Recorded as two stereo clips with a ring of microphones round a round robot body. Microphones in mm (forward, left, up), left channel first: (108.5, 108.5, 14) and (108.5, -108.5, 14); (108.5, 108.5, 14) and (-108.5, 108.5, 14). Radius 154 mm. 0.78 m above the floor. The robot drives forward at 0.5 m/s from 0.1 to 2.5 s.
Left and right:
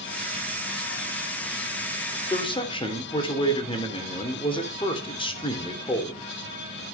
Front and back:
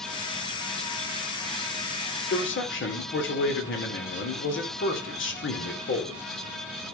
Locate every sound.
2.3 s a man speaking: 25° left, 3.5 m